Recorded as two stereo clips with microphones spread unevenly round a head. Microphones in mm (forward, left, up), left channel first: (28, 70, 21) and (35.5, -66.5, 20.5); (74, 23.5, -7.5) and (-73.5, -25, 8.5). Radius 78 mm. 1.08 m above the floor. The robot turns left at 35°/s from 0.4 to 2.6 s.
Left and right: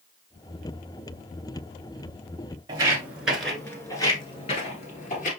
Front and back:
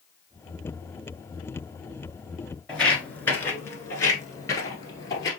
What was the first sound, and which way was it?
Footsteps, 70° right.